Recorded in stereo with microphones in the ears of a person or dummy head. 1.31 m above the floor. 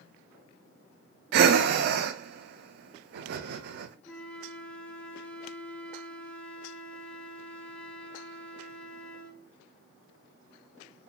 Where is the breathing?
60° right (ahead or behind), 0.6 m.